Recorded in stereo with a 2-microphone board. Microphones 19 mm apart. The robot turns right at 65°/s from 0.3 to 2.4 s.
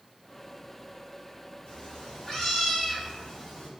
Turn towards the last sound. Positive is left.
turn(degrees=150)